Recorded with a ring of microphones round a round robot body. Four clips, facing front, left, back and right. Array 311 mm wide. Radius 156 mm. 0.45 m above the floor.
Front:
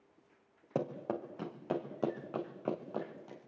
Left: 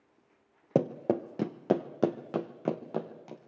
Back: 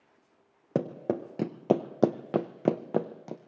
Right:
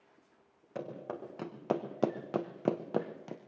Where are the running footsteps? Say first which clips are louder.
Left 13 dB, back 6 dB; 120° left, 1.9 m; by 3.4 s 165° right, 2.5 m.